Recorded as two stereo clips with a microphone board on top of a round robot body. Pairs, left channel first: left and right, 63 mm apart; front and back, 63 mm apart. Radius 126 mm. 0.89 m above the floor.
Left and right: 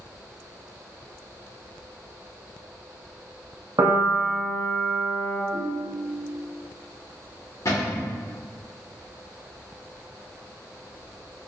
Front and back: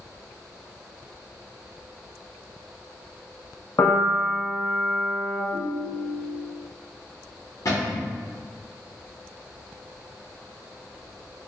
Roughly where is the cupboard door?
Ahead left.